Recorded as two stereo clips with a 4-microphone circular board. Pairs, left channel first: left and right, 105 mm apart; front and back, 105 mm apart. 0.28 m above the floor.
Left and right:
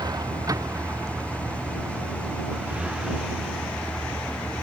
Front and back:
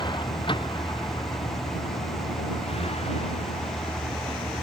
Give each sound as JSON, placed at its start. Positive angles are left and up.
{"t": 0.0, "sound": "a vehicle", "azimuth_deg": -40}